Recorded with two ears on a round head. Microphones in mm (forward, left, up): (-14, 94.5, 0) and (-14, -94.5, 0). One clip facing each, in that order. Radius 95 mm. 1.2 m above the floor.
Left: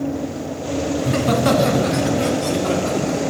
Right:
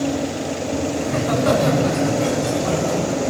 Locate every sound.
1.0 s laughter: 40° left (ahead or behind), 1.5 m; by 3.2 s 80° left, 3 m